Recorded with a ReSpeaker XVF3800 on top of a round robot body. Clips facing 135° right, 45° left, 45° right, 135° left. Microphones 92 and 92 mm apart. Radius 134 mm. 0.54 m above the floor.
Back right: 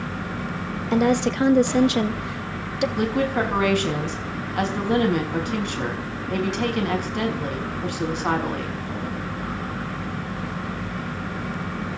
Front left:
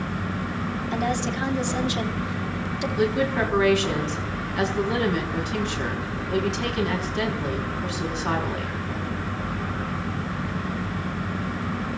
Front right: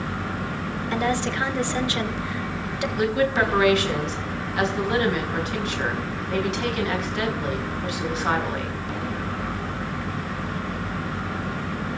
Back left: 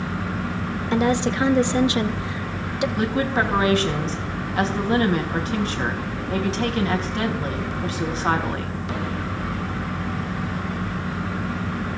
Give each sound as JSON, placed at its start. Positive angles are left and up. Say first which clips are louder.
{"t": 0.9, "sound": "a woman speaking", "louder": "back right 8 dB, back left 4 dB", "azimuth_deg": -155, "distance_m": 2.0}
{"t": 3.0, "sound": "a woman speaking", "louder": "front left 2 dB, front right 3 dB", "azimuth_deg": -170, "distance_m": 5.5}